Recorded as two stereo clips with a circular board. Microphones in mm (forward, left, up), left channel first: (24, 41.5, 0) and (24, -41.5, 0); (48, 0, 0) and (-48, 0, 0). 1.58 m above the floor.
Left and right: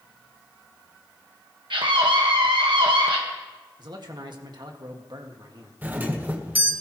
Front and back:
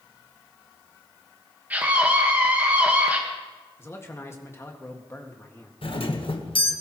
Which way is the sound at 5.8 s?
20° right.